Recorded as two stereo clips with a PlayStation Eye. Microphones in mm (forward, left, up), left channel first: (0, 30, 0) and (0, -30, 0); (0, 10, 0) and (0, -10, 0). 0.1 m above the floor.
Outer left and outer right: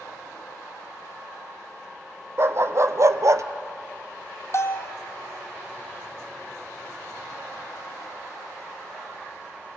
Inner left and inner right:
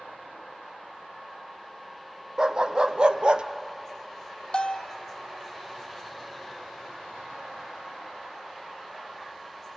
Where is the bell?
50° left (ahead or behind), 0.9 m.